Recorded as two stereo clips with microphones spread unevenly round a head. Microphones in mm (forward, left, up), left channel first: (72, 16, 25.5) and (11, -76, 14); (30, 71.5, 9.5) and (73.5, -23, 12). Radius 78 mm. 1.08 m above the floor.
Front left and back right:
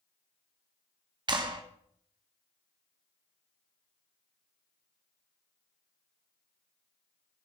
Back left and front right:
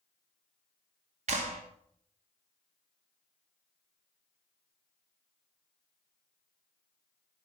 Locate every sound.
1.3 s a clap: 80° right, 2 m